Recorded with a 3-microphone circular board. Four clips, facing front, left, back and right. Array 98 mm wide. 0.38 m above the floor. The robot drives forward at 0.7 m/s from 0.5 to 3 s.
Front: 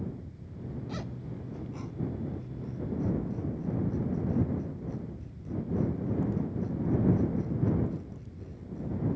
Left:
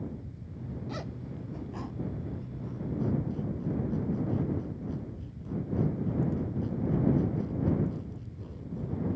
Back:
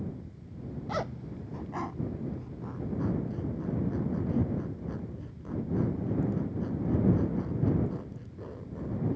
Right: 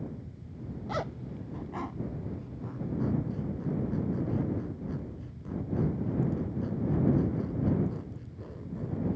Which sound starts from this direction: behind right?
A zipper, at 0.9 s.